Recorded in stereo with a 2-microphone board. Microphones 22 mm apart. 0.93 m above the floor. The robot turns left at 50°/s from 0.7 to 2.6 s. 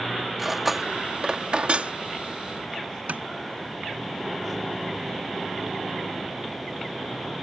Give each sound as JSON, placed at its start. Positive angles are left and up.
{"t": 0.4, "sound": "cutlery clinking", "side_deg": -5}
{"t": 3.1, "sound": "tapping", "side_deg": -80}